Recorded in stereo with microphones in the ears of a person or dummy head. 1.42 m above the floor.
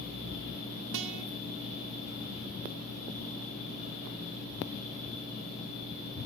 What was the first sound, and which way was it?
A guitar, 70° right (ahead or behind).